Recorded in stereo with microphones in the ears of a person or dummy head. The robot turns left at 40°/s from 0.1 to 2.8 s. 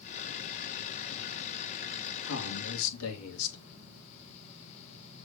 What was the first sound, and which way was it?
A man speaking, 65° left (ahead or behind).